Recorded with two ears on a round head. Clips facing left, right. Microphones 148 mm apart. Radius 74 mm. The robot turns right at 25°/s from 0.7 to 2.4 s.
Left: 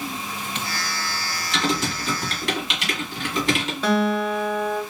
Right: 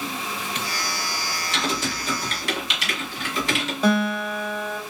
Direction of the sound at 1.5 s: 45° left (ahead or behind).